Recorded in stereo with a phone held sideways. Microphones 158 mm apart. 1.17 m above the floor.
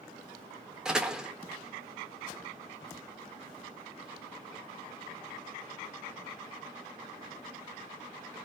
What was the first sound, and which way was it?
A door slam, 5° right (ahead or behind).